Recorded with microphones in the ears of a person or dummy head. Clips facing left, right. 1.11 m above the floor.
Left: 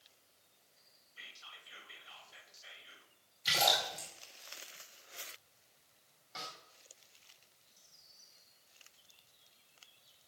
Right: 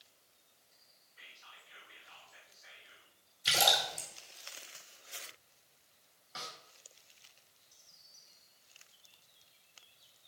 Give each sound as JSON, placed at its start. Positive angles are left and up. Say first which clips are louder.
{"t": 1.2, "sound": "whispering", "louder": "left 1 dB", "side_deg": 40, "distance_m": 1.9}
{"t": 3.5, "sound": "a splash", "louder": "right 1 dB", "side_deg": -35, "distance_m": 5.0}
{"t": 6.3, "sound": "a snare drum", "louder": "even", "side_deg": -5, "distance_m": 2.5}